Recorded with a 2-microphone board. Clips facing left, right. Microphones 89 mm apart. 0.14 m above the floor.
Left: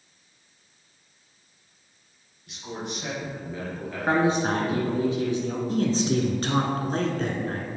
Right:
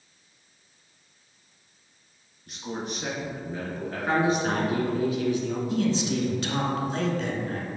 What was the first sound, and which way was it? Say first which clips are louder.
A man speaking: right 1 dB; 40° right (ahead or behind).